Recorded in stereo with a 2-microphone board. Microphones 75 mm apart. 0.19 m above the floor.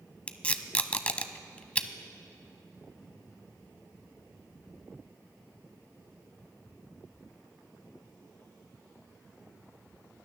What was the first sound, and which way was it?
Tape being pulled, 20° left (ahead or behind).